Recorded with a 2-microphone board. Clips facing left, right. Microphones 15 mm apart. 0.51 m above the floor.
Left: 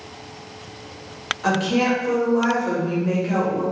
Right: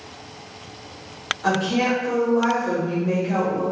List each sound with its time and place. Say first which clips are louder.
1.4 s a woman speaking: left 1 dB; 20° left (ahead or behind), 0.9 m